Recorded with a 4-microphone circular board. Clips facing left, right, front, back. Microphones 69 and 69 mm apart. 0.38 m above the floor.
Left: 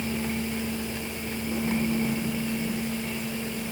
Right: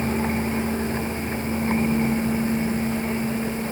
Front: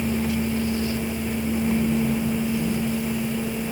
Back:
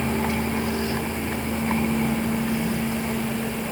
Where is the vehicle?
140° right; by 3.7 s 145° right.